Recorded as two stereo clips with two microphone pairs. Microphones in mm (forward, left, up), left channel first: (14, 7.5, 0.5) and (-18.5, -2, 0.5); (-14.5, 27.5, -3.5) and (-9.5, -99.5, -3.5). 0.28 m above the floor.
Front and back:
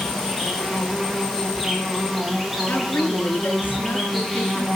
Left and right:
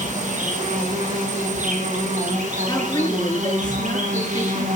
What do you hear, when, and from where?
0.0 s an insect: 80° right, 8 m
2.7 s a woman speaking: 40° left, 4.5 m